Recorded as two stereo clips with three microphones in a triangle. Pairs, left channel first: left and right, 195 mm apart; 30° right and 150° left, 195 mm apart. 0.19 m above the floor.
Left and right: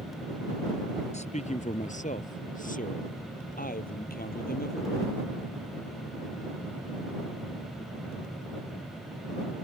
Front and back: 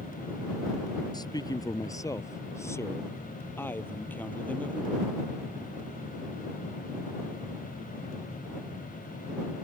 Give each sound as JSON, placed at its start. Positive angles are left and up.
{"t": 1.1, "sound": "a man speaking", "azimuth_deg": 40}